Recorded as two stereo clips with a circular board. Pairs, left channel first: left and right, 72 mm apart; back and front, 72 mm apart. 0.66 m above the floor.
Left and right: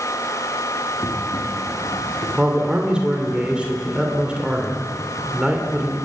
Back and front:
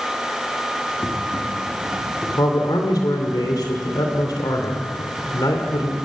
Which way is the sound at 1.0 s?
115° left.